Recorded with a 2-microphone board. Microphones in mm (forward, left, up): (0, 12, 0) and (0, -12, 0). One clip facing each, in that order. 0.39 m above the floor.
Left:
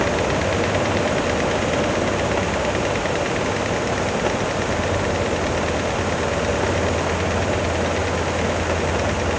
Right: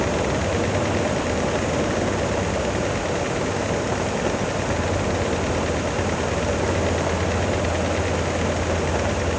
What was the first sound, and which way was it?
Only background noise.